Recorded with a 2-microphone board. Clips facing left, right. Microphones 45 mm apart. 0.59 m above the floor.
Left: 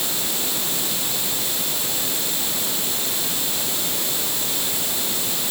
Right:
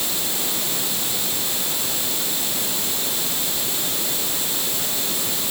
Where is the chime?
No chime in this recording.